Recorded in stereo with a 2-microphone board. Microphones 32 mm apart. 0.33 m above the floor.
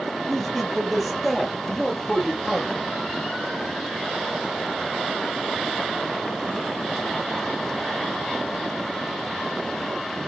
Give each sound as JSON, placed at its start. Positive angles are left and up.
{"t": 0.3, "sound": "a man speaking", "side_deg": 5, "distance_m": 7.0}